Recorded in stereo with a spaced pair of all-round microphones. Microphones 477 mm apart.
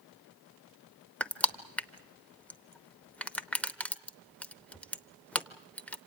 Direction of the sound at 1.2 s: 5° left (ahead or behind).